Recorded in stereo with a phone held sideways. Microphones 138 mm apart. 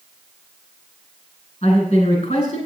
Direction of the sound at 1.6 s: 55° left (ahead or behind).